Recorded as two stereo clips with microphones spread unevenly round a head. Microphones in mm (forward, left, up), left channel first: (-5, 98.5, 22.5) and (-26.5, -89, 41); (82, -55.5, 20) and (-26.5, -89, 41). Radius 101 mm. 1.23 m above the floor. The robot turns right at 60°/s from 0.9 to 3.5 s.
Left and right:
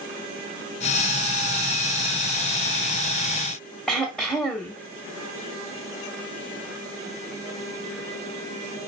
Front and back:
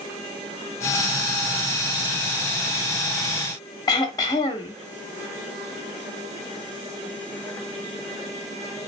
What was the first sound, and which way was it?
Throat clearing, 10° right.